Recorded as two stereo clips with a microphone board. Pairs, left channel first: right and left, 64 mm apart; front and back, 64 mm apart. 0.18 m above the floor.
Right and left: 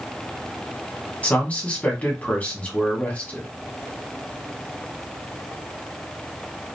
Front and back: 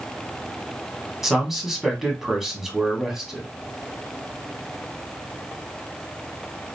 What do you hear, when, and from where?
1.2 s a man speaking: 100° right, 1.0 m